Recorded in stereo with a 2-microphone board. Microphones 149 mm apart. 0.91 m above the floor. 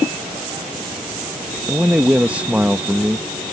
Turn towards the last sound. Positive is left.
turn(degrees=-10)  # may be behind; listen again after turning